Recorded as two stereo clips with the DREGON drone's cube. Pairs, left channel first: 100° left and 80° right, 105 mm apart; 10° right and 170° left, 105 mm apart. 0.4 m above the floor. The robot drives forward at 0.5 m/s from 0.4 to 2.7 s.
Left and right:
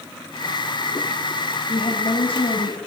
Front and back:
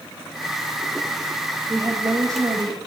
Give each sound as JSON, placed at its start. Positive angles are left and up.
{"t": 1.7, "sound": "a woman speaking", "azimuth_deg": 110, "distance_m": 2.0}